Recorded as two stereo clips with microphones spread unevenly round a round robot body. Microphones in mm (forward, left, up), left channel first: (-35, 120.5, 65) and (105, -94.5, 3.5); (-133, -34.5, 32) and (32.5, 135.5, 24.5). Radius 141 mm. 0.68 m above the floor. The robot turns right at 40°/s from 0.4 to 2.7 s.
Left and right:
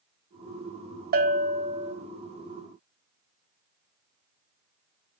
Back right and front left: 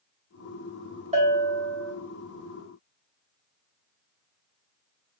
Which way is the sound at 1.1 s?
15° right.